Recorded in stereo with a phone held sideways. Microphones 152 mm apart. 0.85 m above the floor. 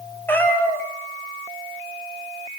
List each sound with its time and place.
0.3 s a cat meowing: 15° left (ahead or behind), 3.5 m